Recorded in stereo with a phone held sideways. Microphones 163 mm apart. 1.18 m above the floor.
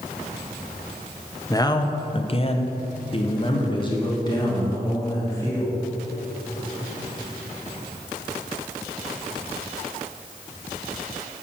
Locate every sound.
1.5 s a man speaking: 20° left (ahead or behind), 0.8 m